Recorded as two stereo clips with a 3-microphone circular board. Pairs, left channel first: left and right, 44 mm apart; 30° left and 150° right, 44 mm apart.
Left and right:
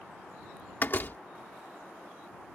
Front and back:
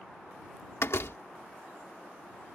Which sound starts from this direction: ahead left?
A door slam, at 0.8 s.